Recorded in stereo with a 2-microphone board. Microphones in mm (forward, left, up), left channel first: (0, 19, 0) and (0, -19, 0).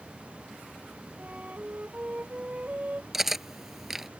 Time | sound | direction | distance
1.2 | a flute | 40° right (ahead or behind) | ?
3.1 | cutlery clinking | 5° right (ahead or behind) | ?